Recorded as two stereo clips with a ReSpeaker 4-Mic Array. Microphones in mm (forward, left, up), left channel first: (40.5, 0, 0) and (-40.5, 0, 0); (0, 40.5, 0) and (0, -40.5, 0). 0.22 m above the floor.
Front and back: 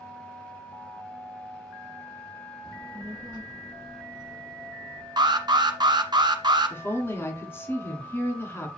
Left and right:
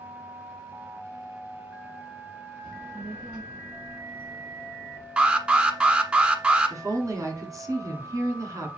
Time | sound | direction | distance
2.6 | a child speaking | 160° right | 1.0 m
5.2 | an alarm | 160° right | 1.4 m
6.7 | a woman speaking | 55° right | 2 m